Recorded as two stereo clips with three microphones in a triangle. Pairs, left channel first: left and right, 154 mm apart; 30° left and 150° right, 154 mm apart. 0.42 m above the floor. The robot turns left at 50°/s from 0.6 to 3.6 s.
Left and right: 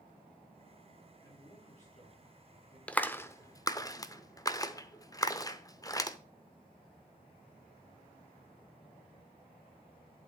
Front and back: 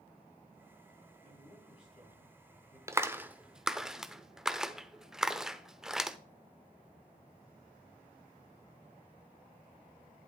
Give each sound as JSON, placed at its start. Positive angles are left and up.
{"t": 1.2, "sound": "a man speaking", "azimuth_deg": 155, "distance_m": 4.0}
{"t": 2.9, "sound": "a clap", "azimuth_deg": 165, "distance_m": 0.7}